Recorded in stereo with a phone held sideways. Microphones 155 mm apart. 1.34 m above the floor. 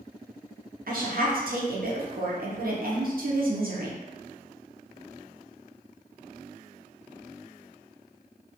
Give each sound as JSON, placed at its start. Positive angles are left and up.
{"t": 0.9, "sound": "a woman speaking", "side_deg": -65, "distance_m": 0.6}